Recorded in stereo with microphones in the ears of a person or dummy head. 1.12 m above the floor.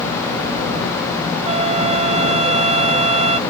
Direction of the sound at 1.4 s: 35° right (ahead or behind).